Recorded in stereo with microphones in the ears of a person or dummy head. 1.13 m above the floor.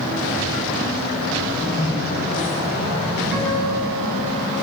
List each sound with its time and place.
1.8 s a microwave: 50° left (ahead or behind), 5 m
3.3 s a guitar: 5° right (ahead or behind), 8.5 m